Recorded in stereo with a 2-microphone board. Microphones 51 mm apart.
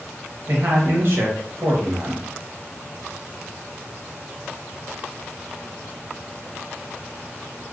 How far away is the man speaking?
About 0.9 m.